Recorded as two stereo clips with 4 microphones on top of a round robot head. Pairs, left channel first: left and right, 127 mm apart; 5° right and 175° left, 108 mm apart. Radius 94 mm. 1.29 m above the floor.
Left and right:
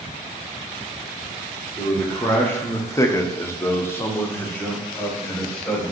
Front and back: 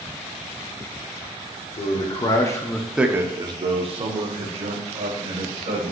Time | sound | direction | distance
1.8 | a man speaking | 15° left | 0.9 m